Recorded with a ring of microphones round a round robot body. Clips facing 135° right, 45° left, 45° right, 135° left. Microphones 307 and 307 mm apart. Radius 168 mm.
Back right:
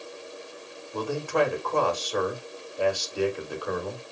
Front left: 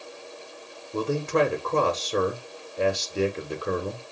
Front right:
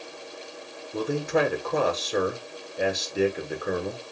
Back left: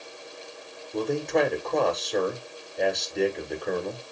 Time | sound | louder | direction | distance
0.9 | a man speaking | front left 2 dB, even | 35° left | 1.4 m